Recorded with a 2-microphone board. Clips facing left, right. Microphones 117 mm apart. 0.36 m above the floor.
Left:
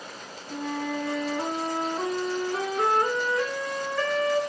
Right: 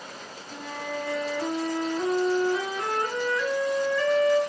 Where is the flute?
55° left (ahead or behind), 5 m.